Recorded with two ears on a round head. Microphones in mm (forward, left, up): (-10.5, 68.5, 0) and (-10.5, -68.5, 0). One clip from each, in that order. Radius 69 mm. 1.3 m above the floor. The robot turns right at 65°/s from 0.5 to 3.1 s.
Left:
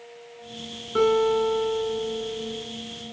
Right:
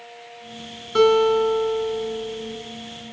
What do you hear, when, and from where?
0.9 s a guitar: 100° right, 8 m; by 2.6 s 10° left, 8 m